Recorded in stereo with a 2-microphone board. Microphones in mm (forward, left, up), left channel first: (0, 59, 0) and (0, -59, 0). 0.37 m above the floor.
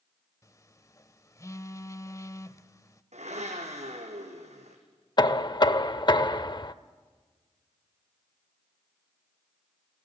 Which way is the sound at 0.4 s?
25° left (ahead or behind).